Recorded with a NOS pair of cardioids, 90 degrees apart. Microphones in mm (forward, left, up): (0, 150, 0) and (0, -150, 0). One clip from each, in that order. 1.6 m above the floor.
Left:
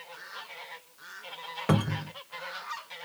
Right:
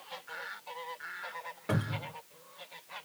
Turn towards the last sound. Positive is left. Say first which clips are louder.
# left 5 dB
turn(degrees=55)